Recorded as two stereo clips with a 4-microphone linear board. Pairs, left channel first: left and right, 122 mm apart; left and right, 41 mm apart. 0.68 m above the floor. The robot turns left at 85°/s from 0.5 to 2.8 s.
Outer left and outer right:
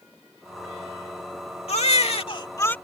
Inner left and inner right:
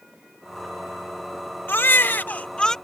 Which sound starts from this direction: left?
A baby crying, at 1.7 s.